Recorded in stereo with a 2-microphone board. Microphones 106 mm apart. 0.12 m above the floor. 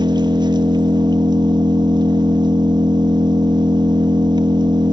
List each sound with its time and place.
0.0 s an engine running: 45° right (ahead or behind), 1.2 m